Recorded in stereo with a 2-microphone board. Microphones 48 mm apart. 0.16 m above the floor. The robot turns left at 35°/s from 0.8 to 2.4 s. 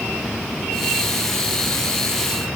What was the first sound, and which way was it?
Only background noise.